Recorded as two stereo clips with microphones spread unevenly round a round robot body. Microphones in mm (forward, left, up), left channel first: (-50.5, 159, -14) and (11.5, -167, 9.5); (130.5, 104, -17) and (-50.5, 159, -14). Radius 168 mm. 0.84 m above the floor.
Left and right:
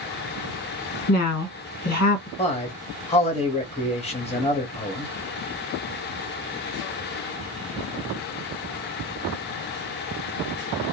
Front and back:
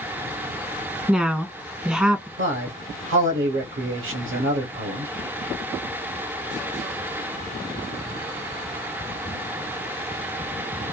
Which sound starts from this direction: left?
A woman speaking, at 1.1 s.